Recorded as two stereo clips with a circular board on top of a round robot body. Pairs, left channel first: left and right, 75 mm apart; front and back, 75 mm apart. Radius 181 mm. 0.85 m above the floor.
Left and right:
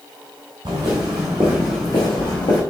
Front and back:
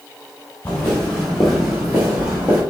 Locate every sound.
0.7 s footsteps: 65° right, 1.4 m; by 2.6 s 120° left, 1.6 m